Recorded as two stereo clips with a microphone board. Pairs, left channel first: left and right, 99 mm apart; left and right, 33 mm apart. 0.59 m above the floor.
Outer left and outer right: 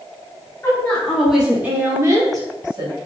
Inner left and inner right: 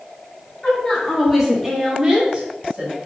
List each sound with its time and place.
0.6 s a woman speaking: 20° left (ahead or behind), 1.0 m; by 2.9 s 45° right (ahead or behind), 1.5 m